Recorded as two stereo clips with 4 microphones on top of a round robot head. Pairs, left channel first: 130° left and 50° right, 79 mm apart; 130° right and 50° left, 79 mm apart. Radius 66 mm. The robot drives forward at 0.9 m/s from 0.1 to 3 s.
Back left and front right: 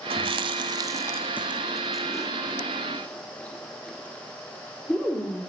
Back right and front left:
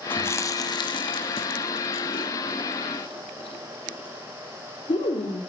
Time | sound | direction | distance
0.1 | chewing | 65° right | 1.2 m